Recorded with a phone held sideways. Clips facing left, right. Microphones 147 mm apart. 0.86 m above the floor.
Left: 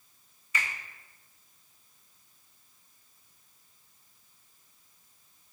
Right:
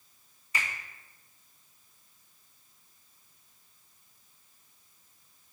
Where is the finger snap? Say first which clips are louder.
Even; 35° right (ahead or behind), 1.4 m.